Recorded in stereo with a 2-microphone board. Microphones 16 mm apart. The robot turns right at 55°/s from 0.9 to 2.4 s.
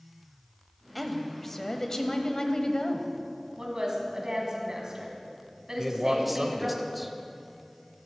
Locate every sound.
0.9 s a woman speaking: 5° left, 1.1 m; by 3.1 s 85° left, 1.1 m
3.6 s a woman speaking: 35° right (ahead or behind), 2.5 m
5.8 s a man speaking: 10° right (ahead or behind), 0.9 m